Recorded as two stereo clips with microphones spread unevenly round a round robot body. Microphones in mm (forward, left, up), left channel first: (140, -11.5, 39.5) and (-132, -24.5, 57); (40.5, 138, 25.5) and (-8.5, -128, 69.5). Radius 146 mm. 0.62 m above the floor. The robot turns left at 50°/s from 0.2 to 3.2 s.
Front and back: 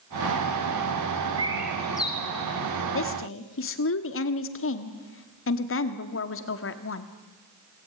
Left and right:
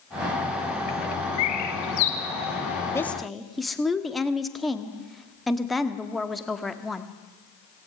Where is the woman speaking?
10° left, 1.5 m; by 7.1 s 5° right, 1.5 m.